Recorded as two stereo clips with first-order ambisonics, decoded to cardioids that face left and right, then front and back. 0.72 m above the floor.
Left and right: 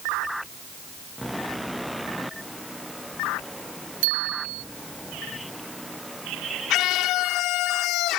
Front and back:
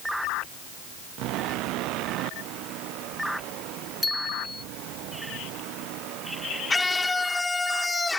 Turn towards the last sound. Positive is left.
turn(degrees=80)